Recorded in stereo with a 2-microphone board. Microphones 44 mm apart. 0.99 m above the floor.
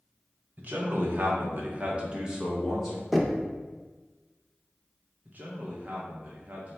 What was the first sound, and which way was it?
A man speaking, 45° right (ahead or behind).